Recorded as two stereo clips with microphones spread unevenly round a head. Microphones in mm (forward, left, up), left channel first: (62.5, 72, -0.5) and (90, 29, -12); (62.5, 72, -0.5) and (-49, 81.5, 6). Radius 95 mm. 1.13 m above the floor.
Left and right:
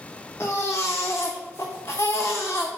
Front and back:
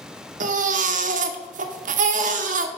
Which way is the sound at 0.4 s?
170° right.